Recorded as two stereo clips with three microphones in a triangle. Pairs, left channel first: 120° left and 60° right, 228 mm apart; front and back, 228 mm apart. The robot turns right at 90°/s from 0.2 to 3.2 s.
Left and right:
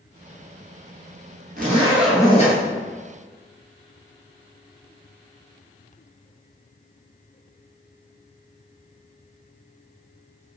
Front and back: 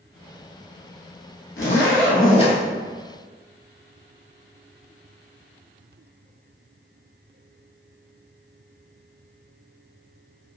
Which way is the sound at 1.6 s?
15° right.